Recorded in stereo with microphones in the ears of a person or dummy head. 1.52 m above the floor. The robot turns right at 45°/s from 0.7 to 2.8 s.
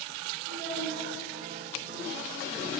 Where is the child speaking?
70° right (ahead or behind), 2.5 m; by 1.1 s 75° right (ahead or behind), 2.5 m.